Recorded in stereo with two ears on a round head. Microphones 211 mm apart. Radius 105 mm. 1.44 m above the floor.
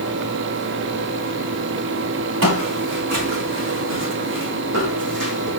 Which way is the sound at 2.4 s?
60° right (ahead or behind).